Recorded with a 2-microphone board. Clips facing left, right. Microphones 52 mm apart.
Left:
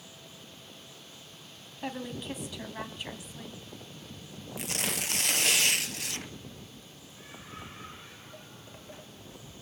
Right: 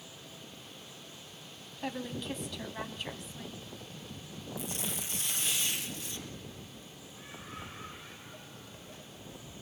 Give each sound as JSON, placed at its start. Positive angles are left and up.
{"t": 1.8, "sound": "a woman speaking", "side_deg": 5, "distance_m": 2.0}
{"t": 4.6, "sound": "tearing paper", "side_deg": 70, "distance_m": 0.9}
{"t": 7.5, "sound": "footsteps", "side_deg": 0, "distance_m": 2.5}